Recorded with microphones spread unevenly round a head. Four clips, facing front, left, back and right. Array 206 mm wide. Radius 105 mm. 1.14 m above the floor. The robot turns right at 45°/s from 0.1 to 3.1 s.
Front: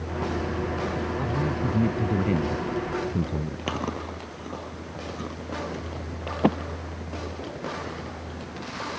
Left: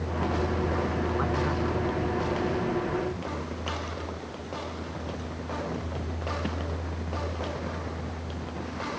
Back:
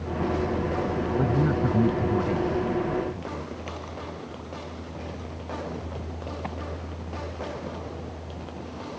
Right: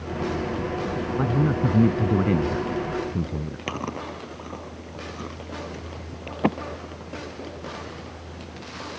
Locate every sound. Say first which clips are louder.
1.2 s a man speaking: right 5 dB, back 6 dB; 130° right; by 3.6 s 40° right
3.7 s chewing: right 4 dB, front 6 dB; 35° right